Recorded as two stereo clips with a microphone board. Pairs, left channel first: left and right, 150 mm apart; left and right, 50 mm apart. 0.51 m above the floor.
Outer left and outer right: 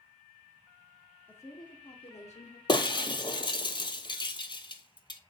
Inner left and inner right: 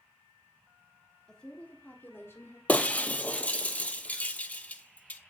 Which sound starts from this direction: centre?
A woman speaking, at 1.3 s.